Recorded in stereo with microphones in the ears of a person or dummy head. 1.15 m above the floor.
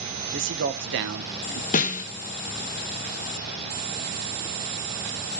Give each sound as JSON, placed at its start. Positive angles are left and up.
{"t": 0.3, "sound": "a man speaking", "side_deg": -60, "distance_m": 1.1}
{"t": 1.7, "sound": "a snare drum", "side_deg": 40, "distance_m": 0.8}